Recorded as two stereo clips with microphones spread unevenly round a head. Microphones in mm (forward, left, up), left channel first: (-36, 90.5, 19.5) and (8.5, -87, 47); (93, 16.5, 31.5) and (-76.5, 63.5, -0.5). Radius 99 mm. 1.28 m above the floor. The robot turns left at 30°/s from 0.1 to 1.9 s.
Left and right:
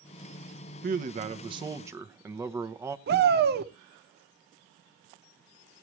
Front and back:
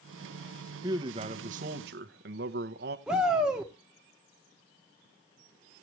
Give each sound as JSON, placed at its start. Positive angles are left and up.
{"t": 0.8, "sound": "a man speaking", "azimuth_deg": -120, "distance_m": 0.9}
{"t": 3.1, "sound": "a shout", "azimuth_deg": -110, "distance_m": 1.3}